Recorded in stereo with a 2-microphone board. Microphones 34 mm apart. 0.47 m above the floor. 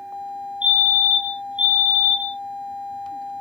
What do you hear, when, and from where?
0.6 s a fire alarm: 35° right (ahead or behind), 2.5 m